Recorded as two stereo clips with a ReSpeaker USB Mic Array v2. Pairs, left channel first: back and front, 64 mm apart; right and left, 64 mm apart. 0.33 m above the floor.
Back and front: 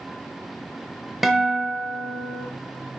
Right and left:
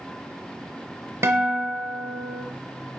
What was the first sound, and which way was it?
A guitar, 85° left.